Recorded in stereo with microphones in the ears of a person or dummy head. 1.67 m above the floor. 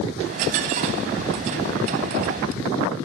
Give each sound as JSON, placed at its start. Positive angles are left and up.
{"t": 0.2, "sound": "a dropped coin", "side_deg": -45, "distance_m": 2.0}